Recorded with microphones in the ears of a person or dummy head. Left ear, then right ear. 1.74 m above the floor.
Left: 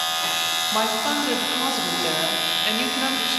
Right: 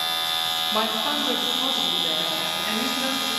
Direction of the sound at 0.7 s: 10° right (ahead or behind).